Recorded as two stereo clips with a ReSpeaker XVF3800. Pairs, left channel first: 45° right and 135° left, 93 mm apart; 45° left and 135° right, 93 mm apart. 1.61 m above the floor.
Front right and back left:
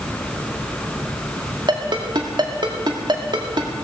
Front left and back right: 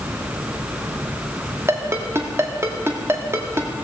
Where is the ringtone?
165° left, 1.9 m.